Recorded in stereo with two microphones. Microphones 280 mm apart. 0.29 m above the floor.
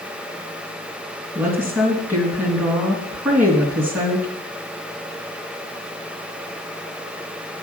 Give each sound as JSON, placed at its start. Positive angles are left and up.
{"t": 1.4, "sound": "a woman speaking", "side_deg": -5, "distance_m": 2.5}